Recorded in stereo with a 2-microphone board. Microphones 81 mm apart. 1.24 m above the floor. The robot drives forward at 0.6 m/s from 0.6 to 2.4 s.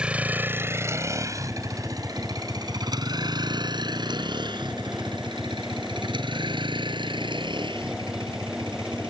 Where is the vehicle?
15° right (ahead or behind); by 9.1 s 85° right.